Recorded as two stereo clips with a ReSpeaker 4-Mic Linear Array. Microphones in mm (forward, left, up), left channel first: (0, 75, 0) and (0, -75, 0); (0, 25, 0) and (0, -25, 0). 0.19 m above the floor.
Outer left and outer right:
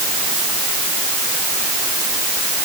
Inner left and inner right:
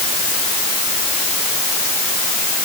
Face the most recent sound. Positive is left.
No sound to turn to.